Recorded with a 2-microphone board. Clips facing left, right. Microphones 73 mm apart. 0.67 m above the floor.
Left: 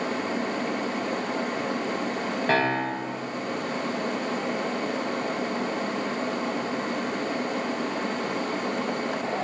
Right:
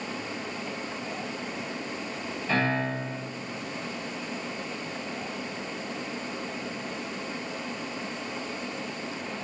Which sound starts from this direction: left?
A piano, at 2.5 s.